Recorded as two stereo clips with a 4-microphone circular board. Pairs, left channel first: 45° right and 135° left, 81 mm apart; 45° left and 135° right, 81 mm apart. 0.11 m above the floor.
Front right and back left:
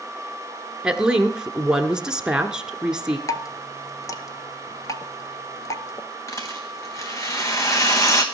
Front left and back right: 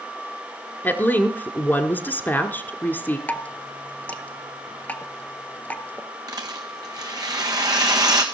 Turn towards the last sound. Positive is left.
turn(degrees=-95)